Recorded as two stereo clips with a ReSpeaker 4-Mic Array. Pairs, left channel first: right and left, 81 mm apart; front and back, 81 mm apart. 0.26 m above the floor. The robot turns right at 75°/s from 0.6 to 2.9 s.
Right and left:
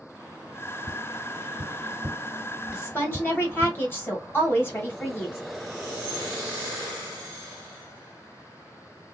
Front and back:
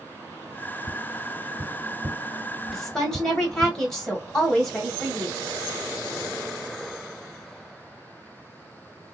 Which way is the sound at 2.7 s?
90° right.